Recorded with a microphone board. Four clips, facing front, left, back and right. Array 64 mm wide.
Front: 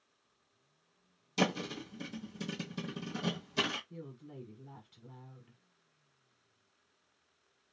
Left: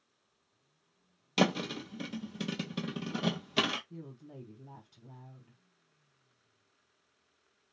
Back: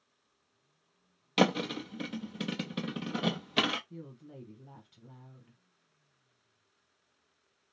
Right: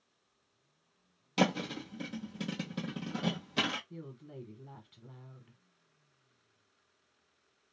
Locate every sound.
1.4 s a thud: 165° left, 0.6 m
3.9 s a woman speaking: 85° right, 1.2 m